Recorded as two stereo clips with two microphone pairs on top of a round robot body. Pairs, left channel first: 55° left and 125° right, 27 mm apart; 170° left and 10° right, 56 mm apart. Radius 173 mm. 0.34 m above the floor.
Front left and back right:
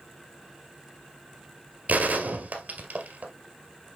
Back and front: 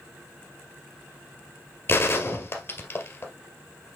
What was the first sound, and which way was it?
A gunshot, 140° right.